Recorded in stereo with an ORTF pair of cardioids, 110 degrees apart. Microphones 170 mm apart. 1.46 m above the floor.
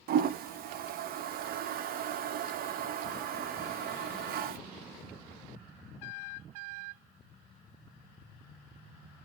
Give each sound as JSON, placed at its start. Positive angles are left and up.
{"t": 0.1, "sound": "a toilet flushing", "azimuth_deg": -60, "distance_m": 0.6}